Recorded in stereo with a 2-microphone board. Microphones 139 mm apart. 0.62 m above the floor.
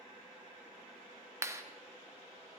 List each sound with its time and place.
1.4 s a clap: 20° right (ahead or behind), 0.9 m